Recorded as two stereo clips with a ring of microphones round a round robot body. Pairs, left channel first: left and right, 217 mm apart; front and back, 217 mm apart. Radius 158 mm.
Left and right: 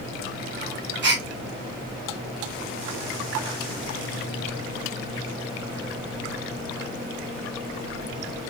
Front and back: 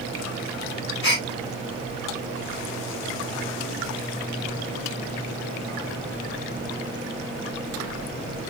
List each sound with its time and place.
1.0 s a gasp: 50° right, 1.0 m